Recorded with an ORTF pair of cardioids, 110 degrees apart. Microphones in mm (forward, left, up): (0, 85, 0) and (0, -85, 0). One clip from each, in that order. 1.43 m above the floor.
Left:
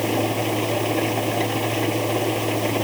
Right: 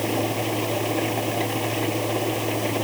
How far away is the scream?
No scream in this recording.